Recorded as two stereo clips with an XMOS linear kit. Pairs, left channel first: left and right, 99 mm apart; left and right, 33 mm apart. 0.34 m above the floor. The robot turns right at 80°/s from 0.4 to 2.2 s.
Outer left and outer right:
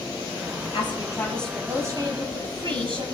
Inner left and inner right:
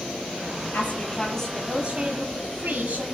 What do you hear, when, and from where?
0.7 s a woman speaking: 120° left, 7 m; by 3.0 s 125° right, 7 m